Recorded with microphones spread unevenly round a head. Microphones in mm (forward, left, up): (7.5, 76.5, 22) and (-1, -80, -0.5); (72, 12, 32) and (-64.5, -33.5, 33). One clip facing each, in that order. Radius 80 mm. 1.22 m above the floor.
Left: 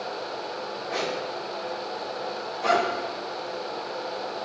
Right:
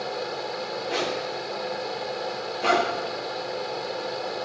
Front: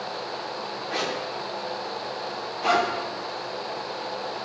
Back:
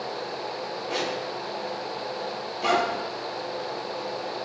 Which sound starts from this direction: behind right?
A zipper, at 0.9 s.